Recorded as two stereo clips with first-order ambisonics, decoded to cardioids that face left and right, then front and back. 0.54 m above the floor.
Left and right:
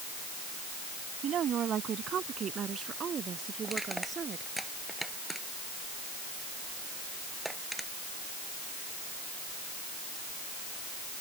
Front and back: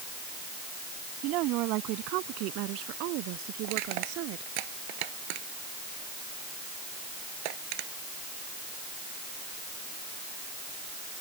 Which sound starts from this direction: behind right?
A woman speaking, at 1.2 s.